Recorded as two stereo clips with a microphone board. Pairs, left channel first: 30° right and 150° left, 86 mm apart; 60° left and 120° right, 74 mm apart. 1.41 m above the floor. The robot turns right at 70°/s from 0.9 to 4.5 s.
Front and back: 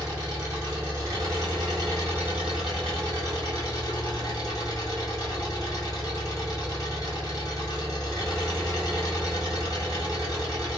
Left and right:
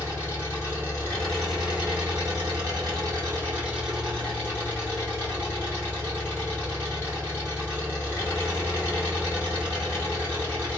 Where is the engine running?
110° left, 1.8 m; by 10.8 s straight ahead, 1.8 m.